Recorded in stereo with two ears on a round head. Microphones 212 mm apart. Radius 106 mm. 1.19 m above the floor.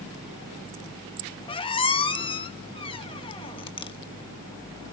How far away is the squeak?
About 1.0 m.